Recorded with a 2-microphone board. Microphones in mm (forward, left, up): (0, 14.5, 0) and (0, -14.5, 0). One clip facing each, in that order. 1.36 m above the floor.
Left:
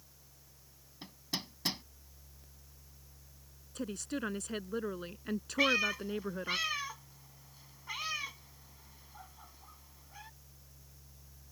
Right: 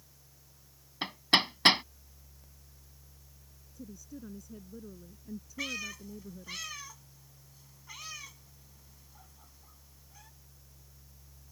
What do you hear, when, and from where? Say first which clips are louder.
1.0 s hammering: right 15 dB; 70° right (ahead or behind)
3.8 s a woman speaking: left 9 dB; 85° left
5.6 s a cat meowing: left 9 dB; 30° left (ahead or behind)